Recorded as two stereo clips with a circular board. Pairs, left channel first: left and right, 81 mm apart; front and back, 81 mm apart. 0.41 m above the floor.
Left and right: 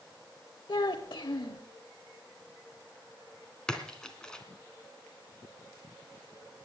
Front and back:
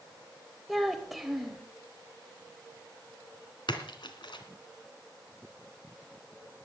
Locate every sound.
0.7 s a child speaking: 90° left, 0.8 m
3.7 s a splash: 10° left, 2 m